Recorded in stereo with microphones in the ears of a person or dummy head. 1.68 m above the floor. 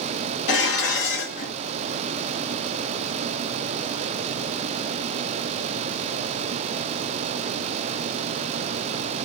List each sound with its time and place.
0.5 s dishes clattering: 65° left (ahead or behind), 1.9 m